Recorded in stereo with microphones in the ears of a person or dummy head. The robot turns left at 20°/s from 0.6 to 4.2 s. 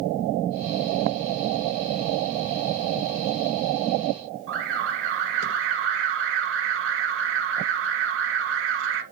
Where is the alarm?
55° right (ahead or behind), 1.1 m.